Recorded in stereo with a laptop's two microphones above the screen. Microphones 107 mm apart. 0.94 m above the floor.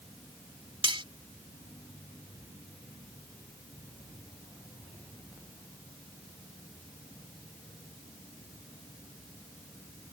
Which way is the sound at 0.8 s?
55° right (ahead or behind).